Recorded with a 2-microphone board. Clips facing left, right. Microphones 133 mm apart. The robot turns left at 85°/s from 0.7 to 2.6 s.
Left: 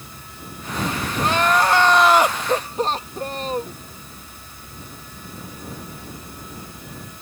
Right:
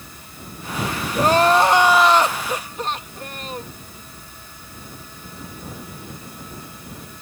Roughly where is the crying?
Right.